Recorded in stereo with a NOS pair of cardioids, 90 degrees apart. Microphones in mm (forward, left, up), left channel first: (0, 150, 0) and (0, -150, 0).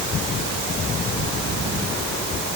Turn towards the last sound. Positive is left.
No sound to turn to.